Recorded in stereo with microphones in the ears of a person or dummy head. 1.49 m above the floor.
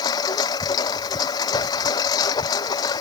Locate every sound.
0.0 s a lawn mower: 20° left (ahead or behind)